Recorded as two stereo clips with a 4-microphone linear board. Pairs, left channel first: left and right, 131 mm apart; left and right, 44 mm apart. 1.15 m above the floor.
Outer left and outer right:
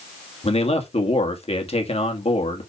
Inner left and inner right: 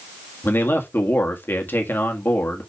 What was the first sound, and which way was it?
A man speaking, 50° left (ahead or behind).